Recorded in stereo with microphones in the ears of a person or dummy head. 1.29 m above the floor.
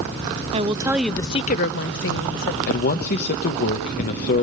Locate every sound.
0.5 s a woman speaking: 30° right (ahead or behind), 0.9 m; by 2.6 s 80° left, 1.5 m
2.7 s a man speaking: 50° left (ahead or behind), 1.0 m